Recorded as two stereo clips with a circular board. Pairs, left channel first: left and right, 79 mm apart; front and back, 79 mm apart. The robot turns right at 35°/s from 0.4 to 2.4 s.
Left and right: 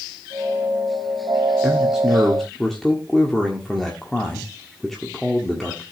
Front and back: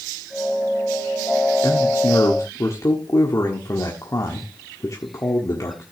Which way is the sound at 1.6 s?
20° right.